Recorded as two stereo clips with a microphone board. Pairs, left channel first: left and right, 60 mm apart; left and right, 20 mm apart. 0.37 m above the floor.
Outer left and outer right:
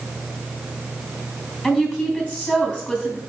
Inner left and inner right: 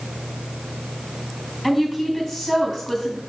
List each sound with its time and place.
1.6 s a woman speaking: 20° left (ahead or behind), 3 m